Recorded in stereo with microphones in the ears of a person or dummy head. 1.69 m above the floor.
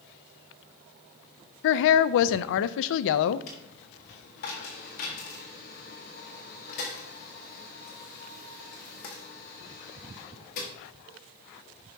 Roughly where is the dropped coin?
Left.